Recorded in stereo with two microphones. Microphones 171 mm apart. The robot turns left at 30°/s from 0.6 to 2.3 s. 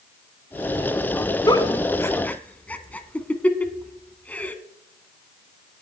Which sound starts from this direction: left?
A giggle, at 1.5 s.